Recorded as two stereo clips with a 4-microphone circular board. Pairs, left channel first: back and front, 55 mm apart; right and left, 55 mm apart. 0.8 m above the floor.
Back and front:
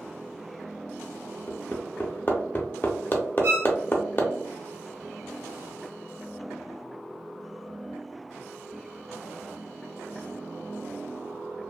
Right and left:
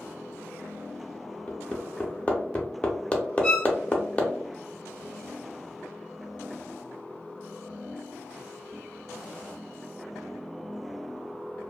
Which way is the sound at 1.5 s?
145° right.